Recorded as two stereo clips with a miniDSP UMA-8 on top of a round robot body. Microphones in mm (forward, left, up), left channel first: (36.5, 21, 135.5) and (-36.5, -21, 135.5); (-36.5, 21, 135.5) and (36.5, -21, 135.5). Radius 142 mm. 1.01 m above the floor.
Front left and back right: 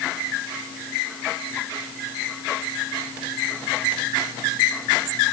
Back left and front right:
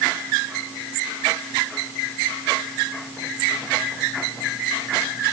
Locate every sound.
Only background noise.